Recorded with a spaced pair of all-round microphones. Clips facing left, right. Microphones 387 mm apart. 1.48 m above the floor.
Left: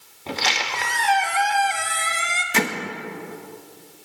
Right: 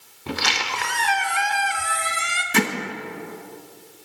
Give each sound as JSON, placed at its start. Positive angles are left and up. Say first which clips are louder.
{"t": 0.3, "sound": "a squeak", "louder": "even", "side_deg": -20, "distance_m": 1.1}
{"t": 2.5, "sound": "hammering", "louder": "right 2 dB", "side_deg": -25, "distance_m": 1.3}